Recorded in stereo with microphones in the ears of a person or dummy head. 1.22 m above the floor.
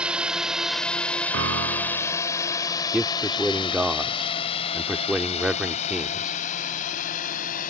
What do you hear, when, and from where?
0.0 s a drone: 10° right (ahead or behind); by 7.7 s 45° left (ahead or behind)
1.3 s a piano: 70° right (ahead or behind)
2.9 s a man speaking: centre (ahead or behind)